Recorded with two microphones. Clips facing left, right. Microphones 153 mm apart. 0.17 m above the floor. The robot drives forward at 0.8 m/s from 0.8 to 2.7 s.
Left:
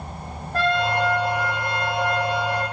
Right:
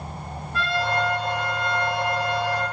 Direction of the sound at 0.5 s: 45° left (ahead or behind).